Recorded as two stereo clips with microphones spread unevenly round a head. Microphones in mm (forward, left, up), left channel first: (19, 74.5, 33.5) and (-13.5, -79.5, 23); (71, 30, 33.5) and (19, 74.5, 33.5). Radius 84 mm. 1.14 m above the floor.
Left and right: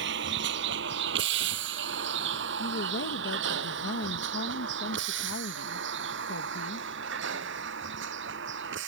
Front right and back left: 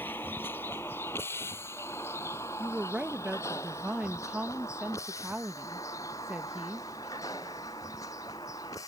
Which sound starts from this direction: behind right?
A vehicle, at 0.0 s.